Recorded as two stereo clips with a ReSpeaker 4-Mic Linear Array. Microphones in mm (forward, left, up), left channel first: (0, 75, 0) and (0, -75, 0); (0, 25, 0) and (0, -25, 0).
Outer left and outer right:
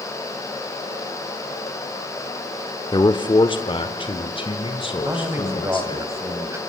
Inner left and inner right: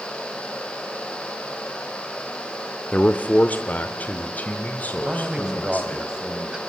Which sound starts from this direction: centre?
A man speaking, at 5.0 s.